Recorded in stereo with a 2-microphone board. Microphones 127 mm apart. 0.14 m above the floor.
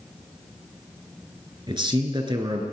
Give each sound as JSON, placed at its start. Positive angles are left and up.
{"t": 1.7, "sound": "a man speaking", "side_deg": -35, "distance_m": 1.7}